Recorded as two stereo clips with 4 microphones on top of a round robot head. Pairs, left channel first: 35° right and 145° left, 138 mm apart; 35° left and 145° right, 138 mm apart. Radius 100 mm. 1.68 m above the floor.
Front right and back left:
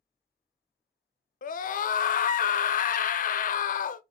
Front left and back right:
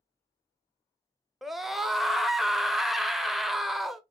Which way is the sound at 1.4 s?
55° right.